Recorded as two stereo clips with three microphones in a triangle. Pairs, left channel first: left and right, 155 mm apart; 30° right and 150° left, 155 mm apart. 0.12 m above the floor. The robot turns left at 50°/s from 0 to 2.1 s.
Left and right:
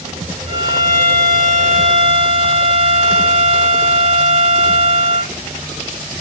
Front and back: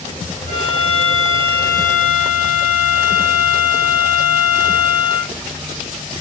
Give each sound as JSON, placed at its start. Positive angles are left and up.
{"t": 0.5, "sound": "a violin", "azimuth_deg": -55, "distance_m": 2.0}